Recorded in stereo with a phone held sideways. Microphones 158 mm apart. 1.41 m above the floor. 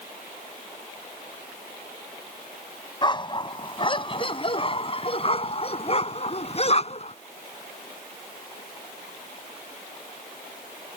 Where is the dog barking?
30° left (ahead or behind); by 7.2 s 45° left (ahead or behind).